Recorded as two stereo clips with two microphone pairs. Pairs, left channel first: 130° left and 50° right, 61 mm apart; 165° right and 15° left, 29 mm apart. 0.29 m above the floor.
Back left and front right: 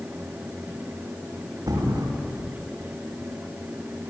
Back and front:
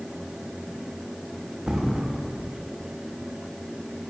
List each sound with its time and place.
1.7 s a thud: 50° right, 7 m